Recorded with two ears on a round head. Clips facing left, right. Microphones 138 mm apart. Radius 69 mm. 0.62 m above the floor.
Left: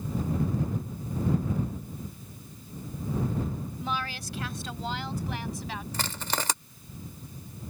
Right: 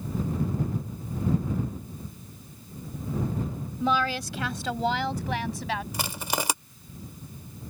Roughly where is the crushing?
Centre.